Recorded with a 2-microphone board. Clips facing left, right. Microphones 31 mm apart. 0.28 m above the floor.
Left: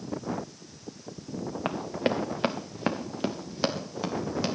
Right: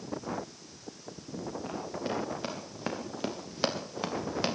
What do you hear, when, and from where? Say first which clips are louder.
1.6 s running footsteps: left 9 dB; 75° left (ahead or behind), 2 m; by 4.5 s 15° right (ahead or behind), 3.5 m